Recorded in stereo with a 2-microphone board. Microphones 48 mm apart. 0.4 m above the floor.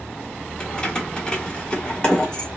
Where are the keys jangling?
20° left (ahead or behind), 0.8 m.